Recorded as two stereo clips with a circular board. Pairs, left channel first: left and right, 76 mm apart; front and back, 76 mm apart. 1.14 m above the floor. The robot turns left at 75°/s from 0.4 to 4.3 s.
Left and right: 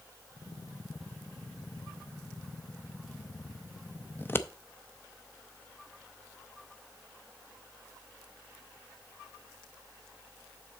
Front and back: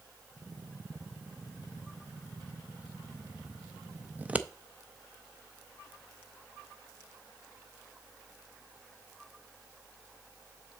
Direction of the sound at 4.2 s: 130° left.